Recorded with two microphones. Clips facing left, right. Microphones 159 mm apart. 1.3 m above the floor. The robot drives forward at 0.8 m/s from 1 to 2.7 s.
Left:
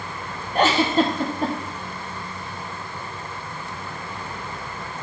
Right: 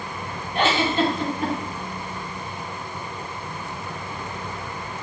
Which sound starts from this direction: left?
A giggle, at 0.6 s.